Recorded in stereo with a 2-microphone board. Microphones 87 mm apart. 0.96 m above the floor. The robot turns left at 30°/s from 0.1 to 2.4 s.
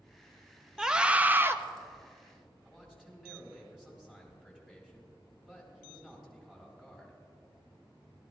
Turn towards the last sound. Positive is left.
turn(degrees=-5)  # may be behind; listen again after turning